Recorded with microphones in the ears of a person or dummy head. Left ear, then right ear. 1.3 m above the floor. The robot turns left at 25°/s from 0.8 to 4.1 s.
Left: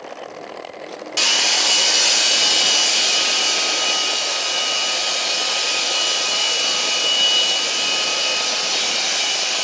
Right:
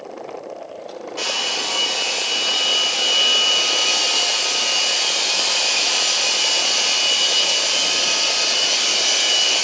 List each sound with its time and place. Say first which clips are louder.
1.2 s a hair dryer: left 6 dB; 70° left, 1.1 m; by 9.6 s 5° right, 1.1 m